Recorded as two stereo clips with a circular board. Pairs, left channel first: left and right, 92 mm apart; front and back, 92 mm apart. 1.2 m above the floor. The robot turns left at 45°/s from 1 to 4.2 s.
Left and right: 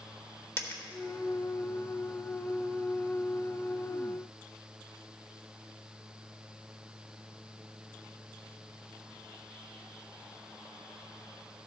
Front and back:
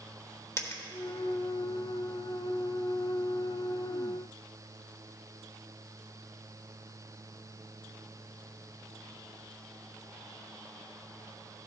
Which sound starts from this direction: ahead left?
A dropped coin, at 0.6 s.